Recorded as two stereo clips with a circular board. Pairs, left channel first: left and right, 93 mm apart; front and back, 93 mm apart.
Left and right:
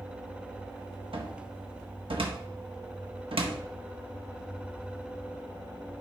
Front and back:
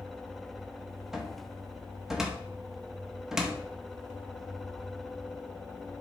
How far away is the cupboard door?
About 0.7 m.